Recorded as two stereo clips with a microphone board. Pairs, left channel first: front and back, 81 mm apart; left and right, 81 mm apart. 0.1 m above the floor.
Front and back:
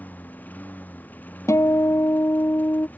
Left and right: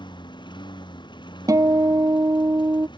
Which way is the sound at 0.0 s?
70° left.